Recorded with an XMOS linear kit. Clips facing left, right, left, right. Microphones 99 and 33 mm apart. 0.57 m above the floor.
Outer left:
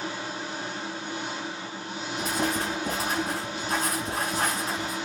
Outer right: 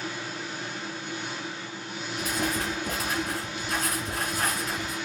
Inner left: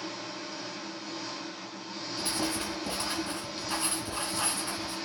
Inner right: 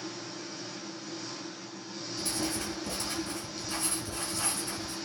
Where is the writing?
35° left (ahead or behind), 3.5 m.